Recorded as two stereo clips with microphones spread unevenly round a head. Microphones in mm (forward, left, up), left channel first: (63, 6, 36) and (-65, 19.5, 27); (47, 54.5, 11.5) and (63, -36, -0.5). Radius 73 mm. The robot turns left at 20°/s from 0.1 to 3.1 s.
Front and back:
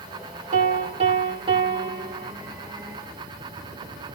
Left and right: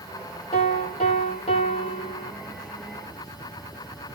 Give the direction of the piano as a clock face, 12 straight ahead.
7 o'clock.